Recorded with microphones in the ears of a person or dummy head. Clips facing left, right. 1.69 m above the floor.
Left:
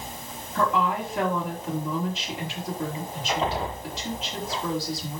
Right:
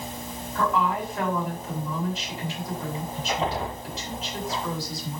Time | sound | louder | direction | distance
0.6 | a woman speaking | even | 55° left (ahead or behind) | 6.5 m